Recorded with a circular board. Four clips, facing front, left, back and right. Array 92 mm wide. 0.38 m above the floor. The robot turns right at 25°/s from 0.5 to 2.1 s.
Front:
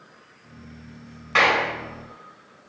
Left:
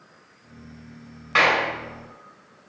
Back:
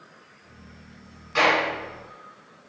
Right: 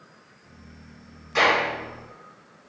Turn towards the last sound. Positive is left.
turn(degrees=70)